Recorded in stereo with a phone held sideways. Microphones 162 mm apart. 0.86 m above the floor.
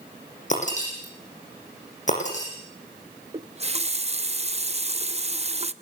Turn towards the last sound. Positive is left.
turn(degrees=-40)  # may be behind; listen again after turning